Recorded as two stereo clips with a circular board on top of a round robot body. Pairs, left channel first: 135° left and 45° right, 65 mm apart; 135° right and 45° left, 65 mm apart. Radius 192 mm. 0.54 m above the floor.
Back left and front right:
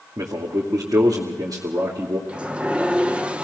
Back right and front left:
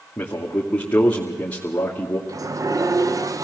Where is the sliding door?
25° left, 1.1 m.